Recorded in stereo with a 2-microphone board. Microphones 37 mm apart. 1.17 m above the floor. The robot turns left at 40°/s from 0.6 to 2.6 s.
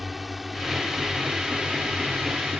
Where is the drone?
Straight ahead; by 2.6 s 80° right.